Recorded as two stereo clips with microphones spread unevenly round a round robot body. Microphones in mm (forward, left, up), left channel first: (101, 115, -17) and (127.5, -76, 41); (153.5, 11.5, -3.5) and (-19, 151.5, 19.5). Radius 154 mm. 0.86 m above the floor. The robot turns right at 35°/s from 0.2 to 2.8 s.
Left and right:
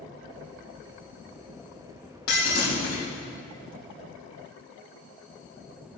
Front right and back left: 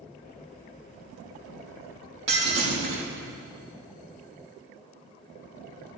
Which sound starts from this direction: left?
Breaking glass, at 2.3 s.